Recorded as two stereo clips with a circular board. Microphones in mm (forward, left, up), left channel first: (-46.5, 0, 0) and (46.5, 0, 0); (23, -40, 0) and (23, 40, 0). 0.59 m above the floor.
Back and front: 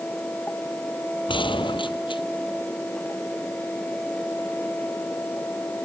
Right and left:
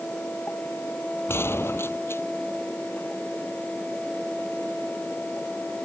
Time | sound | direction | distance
1.3 | a gunshot | 150° right | ?